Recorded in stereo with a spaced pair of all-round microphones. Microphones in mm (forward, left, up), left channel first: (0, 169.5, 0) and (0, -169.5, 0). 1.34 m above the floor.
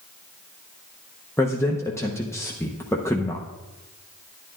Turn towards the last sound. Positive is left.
turn(degrees=10)  # may be behind; listen again after turning